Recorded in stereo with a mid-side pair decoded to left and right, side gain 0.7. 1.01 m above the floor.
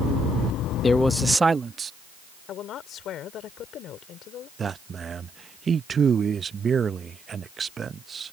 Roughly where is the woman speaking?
Ahead left.